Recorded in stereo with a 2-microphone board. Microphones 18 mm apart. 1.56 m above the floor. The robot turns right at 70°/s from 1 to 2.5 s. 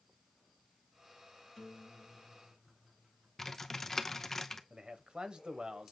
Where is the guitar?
160° left, 2 m; by 3.3 s 135° right, 2 m.